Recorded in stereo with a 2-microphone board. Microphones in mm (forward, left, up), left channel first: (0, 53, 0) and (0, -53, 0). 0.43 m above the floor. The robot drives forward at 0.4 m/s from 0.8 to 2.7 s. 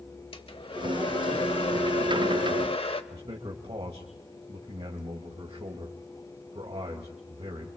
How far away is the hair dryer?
About 1.2 m.